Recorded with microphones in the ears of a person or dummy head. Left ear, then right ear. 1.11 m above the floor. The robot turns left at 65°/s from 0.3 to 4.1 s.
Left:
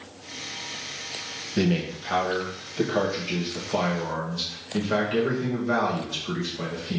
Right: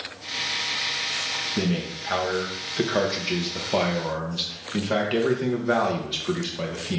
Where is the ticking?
I don't hear ticking.